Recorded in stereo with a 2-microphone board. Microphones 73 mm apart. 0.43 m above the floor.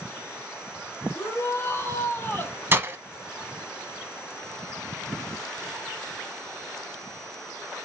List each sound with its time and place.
1.1 s a shout: 35° left (ahead or behind), 2.5 m; by 2.6 s 25° left (ahead or behind), 1.5 m
2.7 s breaking glass: 30° right (ahead or behind), 0.7 m